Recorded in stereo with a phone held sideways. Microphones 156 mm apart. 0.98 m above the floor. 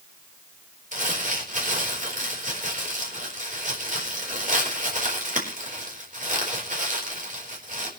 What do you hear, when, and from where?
0.9 s crumpling: 55° right (ahead or behind), 4 m